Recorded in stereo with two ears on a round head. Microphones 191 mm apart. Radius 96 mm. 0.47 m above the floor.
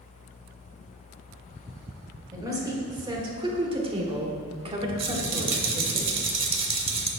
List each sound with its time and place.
2.3 s a woman speaking: 15° right (ahead or behind), 1.8 m; by 6.0 s 20° right (ahead or behind), 1.6 m
5.0 s a rattle: 25° right (ahead or behind), 1.0 m